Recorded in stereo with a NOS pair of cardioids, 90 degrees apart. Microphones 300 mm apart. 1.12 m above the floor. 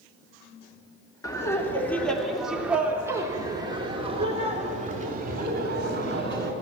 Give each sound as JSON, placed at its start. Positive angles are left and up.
{"t": 1.2, "sound": "laughter", "azimuth_deg": 10, "distance_m": 3.0}